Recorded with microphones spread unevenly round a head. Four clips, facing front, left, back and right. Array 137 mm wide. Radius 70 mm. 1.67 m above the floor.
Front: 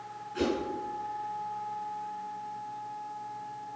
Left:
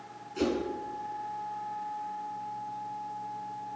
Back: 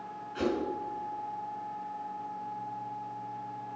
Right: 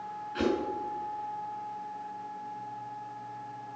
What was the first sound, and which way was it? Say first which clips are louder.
A whoosh: right 1 dB, front 1 dB; 75° right.